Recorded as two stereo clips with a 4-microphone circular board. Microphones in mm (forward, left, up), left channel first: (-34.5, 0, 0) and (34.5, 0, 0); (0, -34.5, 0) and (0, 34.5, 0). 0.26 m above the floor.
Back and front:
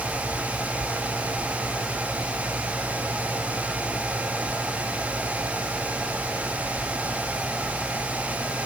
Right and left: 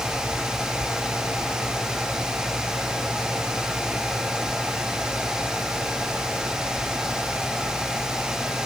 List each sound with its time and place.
Only background noise.